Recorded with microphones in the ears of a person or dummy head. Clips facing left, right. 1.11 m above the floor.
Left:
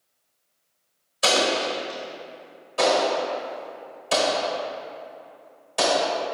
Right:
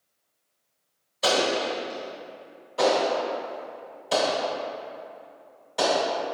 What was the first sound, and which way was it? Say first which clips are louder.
An explosion: left 1 dB; centre (ahead or behind).